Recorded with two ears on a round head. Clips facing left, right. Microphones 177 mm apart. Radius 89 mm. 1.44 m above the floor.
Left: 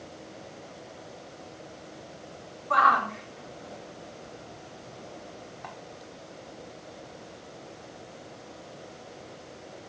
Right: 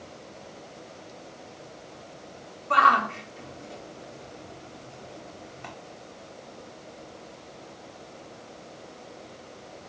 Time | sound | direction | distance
2.7 | a shout | 35° right (ahead or behind) | 4.5 m